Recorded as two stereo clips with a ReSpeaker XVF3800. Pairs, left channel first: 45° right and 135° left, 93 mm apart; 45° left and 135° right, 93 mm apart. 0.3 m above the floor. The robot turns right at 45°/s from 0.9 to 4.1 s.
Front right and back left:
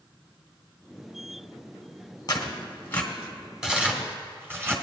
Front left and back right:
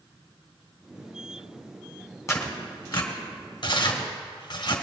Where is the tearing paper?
10° right, 1.6 m; by 4.7 s 75° left, 1.6 m.